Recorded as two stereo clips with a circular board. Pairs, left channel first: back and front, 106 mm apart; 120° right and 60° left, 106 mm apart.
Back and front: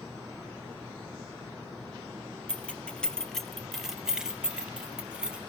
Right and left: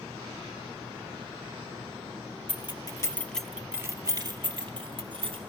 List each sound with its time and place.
2.5 s keys jangling: 105° right, 0.8 m; by 5.4 s 80° left, 1.4 m